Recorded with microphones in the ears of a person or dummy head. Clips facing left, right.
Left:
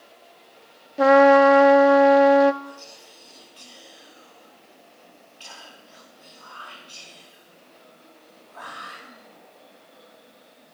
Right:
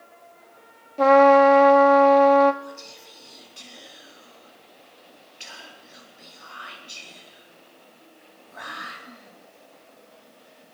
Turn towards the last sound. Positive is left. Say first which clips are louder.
# right 1 dB
turn(degrees=-20)  # may be behind; listen again after turning